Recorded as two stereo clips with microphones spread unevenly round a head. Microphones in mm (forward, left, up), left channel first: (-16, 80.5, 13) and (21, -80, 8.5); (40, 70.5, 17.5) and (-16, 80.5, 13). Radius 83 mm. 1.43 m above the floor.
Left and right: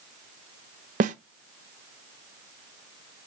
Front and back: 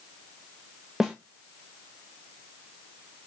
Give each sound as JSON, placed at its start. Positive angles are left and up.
{"t": 1.0, "sound": "a snare drum", "azimuth_deg": -105, "distance_m": 0.7}